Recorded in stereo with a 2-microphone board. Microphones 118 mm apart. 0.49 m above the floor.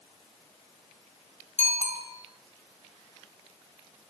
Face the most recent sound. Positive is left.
turn(degrees=-80)